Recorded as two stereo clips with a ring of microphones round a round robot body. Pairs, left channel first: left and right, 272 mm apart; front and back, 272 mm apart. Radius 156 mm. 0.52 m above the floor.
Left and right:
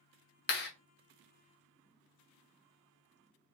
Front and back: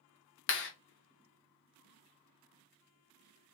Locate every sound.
0.5 s a clap: 40° left, 1.0 m